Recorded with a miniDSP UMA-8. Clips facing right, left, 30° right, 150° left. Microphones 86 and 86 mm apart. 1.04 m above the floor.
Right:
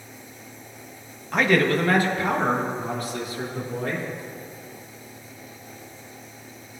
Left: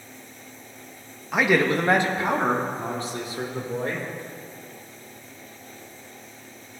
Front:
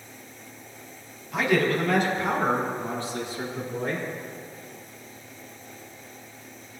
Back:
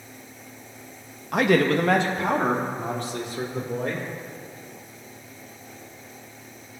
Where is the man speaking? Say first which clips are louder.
Right 1 dB, back 3 dB; 175° left, 0.9 m; by 4.0 s 145° left, 3.5 m.